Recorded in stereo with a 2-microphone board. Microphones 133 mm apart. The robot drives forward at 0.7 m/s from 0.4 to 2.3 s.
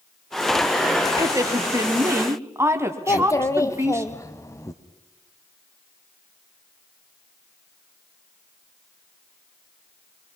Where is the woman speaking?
25° right (ahead or behind), 1.4 m; by 4.1 s 20° right (ahead or behind), 1.8 m.